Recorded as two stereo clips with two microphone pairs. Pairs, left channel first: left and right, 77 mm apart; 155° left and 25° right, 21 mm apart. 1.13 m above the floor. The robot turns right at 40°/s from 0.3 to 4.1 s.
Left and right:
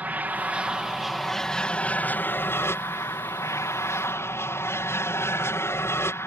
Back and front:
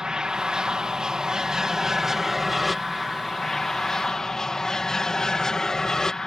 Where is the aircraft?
35° right; by 6.3 s 115° left.